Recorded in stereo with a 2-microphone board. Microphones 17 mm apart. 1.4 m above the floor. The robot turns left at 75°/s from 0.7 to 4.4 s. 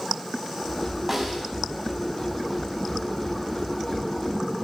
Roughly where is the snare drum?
Behind.